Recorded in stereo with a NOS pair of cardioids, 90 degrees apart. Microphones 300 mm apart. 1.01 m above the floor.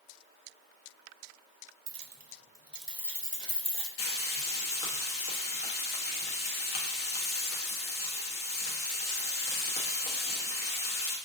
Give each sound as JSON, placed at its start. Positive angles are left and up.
{"t": 1.9, "sound": "keys jangling", "azimuth_deg": -50, "distance_m": 0.5}
{"t": 4.0, "sound": "frying", "azimuth_deg": 50, "distance_m": 1.0}